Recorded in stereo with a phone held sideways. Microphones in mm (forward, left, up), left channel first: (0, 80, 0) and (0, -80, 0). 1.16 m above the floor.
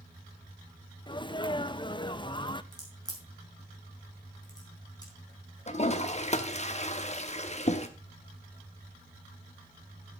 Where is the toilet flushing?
45° left (ahead or behind), 0.9 m.